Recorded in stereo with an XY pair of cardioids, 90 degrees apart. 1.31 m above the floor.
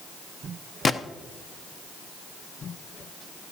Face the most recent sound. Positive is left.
turn(degrees=45)